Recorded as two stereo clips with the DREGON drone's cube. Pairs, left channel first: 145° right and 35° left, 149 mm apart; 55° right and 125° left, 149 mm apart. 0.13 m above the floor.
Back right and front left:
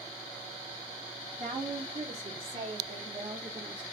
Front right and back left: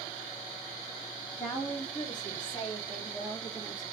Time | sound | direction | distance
1.4 | a woman speaking | 10° left | 3 m